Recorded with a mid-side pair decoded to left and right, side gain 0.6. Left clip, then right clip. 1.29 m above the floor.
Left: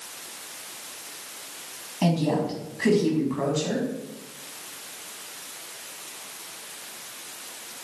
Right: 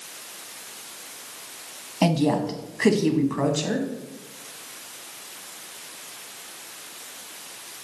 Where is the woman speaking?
40° right, 1.1 m.